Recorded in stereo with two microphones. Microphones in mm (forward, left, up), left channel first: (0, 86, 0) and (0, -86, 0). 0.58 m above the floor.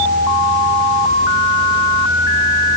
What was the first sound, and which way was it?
Only background noise.